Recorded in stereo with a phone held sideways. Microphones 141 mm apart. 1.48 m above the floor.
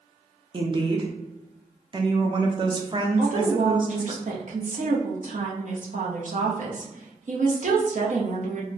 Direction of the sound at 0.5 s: 35° right (ahead or behind).